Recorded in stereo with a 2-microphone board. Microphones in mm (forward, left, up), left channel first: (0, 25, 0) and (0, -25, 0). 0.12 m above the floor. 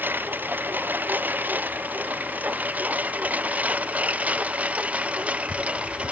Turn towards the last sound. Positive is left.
turn(degrees=-25)  # may be behind; listen again after turning